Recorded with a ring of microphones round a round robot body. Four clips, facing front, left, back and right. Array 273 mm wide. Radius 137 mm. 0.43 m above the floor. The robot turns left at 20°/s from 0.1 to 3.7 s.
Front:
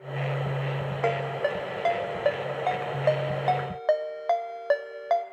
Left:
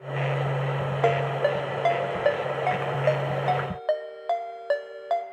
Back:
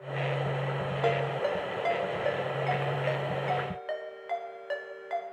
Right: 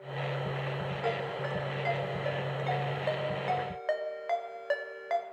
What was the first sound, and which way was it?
A ringtone, 80° left.